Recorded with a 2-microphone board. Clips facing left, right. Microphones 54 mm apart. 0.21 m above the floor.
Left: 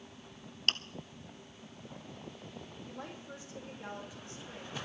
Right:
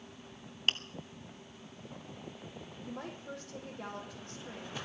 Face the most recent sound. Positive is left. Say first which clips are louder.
# right 4 dB
turn(degrees=-75)  # may be behind; listen again after turning